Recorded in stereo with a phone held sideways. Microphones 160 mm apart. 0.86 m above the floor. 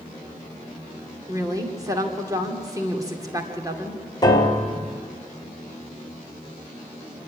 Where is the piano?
25° left (ahead or behind), 2.5 m.